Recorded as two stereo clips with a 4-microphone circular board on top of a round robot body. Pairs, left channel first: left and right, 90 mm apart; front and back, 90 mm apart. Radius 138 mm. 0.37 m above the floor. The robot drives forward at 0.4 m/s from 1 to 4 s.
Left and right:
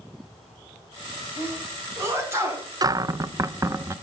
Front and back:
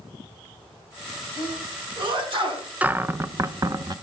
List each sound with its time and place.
1.4 s a sneeze: 150° right, 5.5 m; by 2.7 s 155° right, 6 m
2.8 s a cupboard door: 110° right, 0.7 m; by 3.9 s 145° right, 1.0 m